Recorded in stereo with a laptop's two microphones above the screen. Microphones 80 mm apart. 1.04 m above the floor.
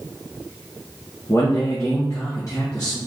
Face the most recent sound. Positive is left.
turn(degrees=40)  # may be behind; listen again after turning